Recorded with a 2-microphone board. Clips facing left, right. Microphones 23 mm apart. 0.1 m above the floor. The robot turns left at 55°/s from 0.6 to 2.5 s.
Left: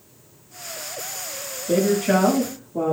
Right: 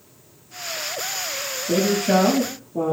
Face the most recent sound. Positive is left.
turn(degrees=15)  # may be behind; listen again after turning